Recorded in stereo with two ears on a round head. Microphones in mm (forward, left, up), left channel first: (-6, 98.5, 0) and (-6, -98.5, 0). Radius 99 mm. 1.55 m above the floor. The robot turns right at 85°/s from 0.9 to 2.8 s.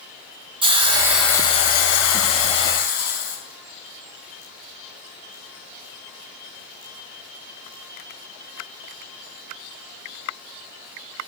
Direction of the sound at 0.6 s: 25° right.